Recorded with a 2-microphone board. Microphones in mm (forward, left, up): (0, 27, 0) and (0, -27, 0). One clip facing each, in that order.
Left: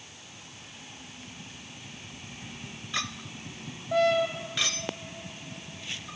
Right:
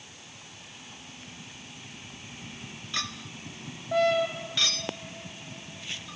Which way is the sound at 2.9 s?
20° left (ahead or behind).